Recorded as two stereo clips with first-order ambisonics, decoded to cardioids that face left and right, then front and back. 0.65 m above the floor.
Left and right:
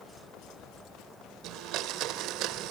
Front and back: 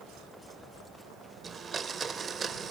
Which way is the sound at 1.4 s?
115° right.